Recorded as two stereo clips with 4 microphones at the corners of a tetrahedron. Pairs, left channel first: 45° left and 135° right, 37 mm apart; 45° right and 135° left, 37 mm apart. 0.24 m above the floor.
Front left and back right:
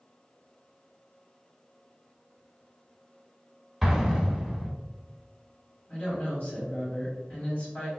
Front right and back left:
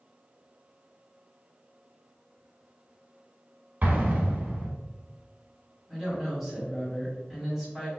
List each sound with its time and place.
3.8 s an explosion: 145° left, 0.8 m
5.9 s a woman speaking: 60° left, 1.7 m